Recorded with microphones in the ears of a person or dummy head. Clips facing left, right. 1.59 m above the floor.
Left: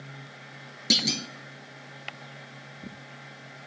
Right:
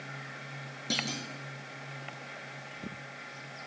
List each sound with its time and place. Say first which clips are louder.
0.9 s a clunk: left 7 dB; 25° left (ahead or behind), 0.7 m